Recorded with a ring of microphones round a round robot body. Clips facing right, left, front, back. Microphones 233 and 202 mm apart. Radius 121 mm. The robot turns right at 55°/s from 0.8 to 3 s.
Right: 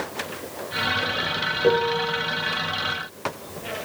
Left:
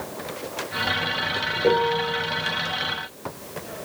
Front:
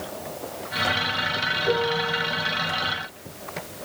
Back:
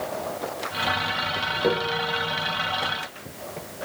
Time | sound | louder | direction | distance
1.6 | a piano | even, front 1 dB | straight behind | 4.5 m